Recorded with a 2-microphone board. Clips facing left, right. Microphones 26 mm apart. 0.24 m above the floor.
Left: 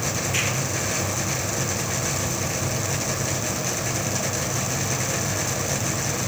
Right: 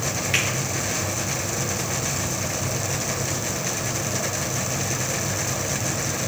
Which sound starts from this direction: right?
A finger snap, at 0.3 s.